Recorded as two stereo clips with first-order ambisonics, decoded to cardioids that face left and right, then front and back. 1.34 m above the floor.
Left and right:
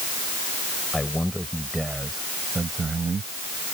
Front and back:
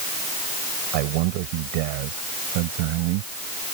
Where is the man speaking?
175° left; by 3.3 s 160° right.